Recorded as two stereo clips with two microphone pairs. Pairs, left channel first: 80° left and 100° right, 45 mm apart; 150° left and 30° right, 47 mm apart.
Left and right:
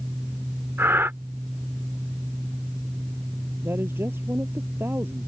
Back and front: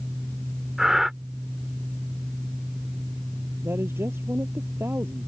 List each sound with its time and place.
0.8 s breathing: 115° right
3.6 s a woman speaking: 65° right